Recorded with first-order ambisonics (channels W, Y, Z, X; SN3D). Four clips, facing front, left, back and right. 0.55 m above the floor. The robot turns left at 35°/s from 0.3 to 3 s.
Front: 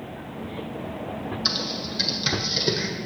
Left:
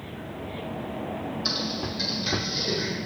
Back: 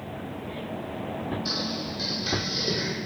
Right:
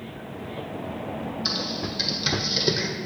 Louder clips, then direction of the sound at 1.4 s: Right 1 dB, front 6 dB; 10° right.